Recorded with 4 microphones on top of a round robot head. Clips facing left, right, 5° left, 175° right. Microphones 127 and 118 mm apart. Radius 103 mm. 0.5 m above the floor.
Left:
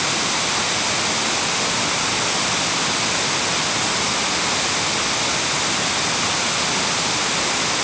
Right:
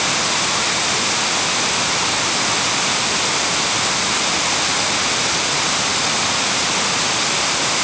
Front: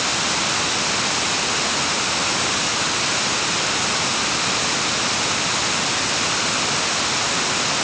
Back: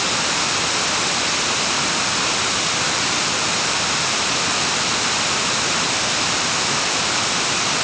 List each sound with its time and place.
Only background noise.